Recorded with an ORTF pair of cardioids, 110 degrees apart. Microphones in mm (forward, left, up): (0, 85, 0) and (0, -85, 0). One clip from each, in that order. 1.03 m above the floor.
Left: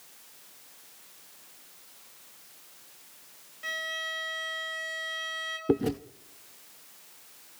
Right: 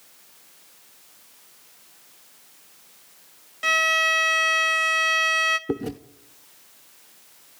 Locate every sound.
3.6 s a violin: 70° right, 1.7 m
5.7 s chewing: 10° left, 0.6 m